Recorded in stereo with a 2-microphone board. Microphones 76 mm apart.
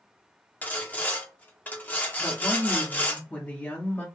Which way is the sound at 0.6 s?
25° left (ahead or behind).